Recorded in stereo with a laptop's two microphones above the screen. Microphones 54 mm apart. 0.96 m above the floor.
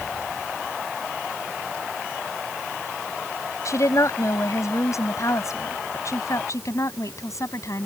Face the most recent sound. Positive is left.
turn(degrees=65)  # may be behind; listen again after turning